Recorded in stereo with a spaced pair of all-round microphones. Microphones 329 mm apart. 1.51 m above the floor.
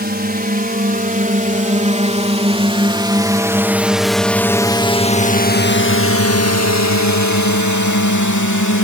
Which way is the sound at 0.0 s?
30° right (ahead or behind).